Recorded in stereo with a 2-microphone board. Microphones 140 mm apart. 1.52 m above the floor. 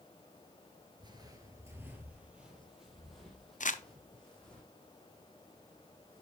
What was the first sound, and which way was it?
Footsteps, 30° right (ahead or behind).